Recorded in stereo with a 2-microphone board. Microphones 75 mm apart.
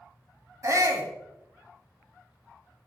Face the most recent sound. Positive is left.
turn(degrees=-50)  # may be behind; listen again after turning